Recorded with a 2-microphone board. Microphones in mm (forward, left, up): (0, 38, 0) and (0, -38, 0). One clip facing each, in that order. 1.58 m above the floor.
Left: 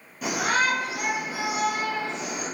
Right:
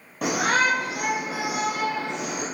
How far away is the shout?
About 1.1 m.